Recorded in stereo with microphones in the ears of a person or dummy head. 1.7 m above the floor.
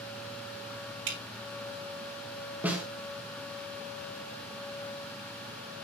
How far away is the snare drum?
About 1.8 m.